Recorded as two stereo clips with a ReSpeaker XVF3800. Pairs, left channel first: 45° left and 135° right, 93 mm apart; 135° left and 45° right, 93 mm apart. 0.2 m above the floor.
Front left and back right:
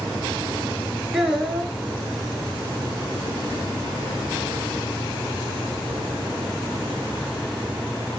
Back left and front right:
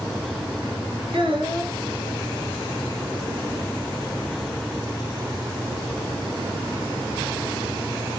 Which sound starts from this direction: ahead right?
A child speaking, at 1.1 s.